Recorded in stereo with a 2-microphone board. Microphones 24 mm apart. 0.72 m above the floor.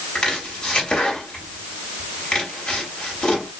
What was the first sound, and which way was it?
Chopping, 55° left (ahead or behind).